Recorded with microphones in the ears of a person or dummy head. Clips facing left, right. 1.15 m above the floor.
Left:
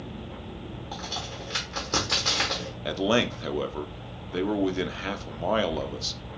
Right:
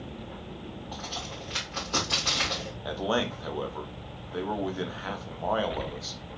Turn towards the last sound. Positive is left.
turn(degrees=35)  # may be behind; listen again after turning